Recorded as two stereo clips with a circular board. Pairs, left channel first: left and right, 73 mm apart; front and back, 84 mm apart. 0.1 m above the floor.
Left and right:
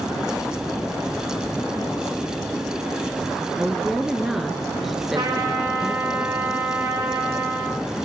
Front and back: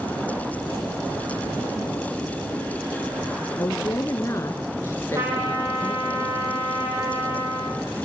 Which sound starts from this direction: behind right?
A trumpet, at 5.2 s.